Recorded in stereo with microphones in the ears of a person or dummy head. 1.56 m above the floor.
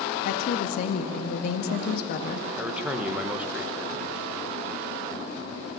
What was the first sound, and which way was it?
A woman speaking, 50° left (ahead or behind).